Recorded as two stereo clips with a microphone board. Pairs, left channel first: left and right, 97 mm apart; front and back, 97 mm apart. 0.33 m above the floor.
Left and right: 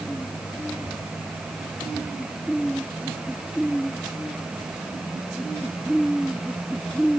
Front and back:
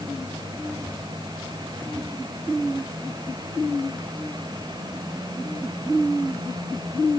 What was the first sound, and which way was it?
Only background noise.